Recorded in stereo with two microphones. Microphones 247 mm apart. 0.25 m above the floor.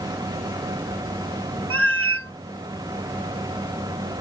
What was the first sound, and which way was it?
A cat meowing, 70° right (ahead or behind).